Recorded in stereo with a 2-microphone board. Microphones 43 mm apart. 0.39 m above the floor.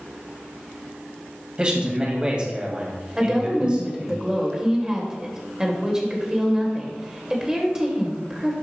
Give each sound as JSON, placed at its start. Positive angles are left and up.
{"t": 1.6, "sound": "a man speaking", "side_deg": -25, "distance_m": 2.0}
{"t": 3.2, "sound": "a woman speaking", "side_deg": -15, "distance_m": 1.8}